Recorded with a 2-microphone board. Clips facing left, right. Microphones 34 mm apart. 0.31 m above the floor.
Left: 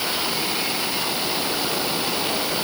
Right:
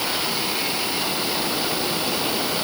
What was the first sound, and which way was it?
Only background noise.